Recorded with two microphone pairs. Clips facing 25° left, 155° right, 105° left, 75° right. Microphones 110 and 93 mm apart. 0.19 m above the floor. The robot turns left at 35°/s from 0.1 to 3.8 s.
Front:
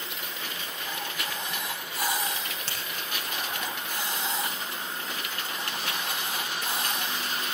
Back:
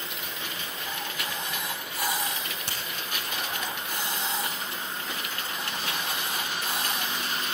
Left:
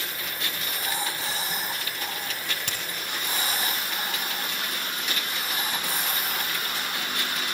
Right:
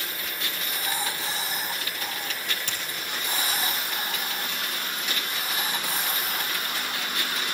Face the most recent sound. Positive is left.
turn(degrees=90)